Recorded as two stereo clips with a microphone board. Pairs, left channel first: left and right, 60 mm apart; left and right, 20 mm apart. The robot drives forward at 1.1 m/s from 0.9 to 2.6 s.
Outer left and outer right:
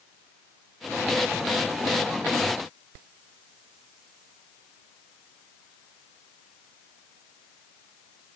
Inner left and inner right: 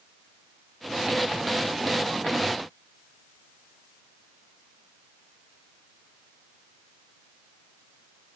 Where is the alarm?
I don't hear an alarm.